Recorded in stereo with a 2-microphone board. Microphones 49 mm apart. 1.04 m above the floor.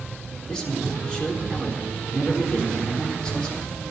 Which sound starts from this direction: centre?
A man speaking, at 0.5 s.